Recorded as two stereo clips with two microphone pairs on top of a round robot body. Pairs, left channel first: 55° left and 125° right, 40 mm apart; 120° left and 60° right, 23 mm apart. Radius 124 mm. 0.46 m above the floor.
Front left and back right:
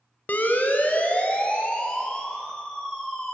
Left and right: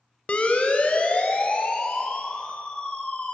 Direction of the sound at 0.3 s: 100° left.